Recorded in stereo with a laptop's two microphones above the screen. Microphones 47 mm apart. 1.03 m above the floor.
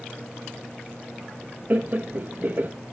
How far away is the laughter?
About 1.4 m.